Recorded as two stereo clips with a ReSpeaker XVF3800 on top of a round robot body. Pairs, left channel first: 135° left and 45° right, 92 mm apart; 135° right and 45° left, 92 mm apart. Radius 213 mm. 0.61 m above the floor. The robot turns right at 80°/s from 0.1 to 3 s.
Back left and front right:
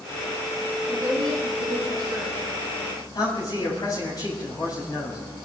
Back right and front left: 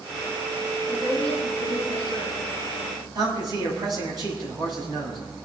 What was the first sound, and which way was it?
A woman speaking, 95° right.